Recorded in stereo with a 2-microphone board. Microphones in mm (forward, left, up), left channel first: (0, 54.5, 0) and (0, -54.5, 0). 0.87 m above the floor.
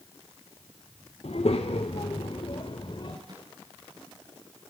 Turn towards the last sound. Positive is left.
turn(degrees=-40)  # may be behind; listen again after turning